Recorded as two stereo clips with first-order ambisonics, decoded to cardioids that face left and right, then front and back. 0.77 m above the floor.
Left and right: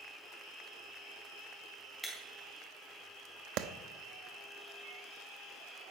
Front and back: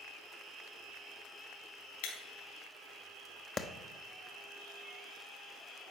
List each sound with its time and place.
2.0 s breaking glass: straight ahead, 4 m
3.6 s a clap: 65° right, 0.9 m